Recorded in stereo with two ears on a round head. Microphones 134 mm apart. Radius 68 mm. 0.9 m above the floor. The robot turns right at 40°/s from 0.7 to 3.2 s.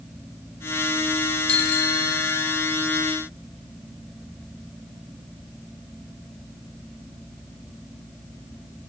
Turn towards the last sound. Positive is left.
turn(degrees=110)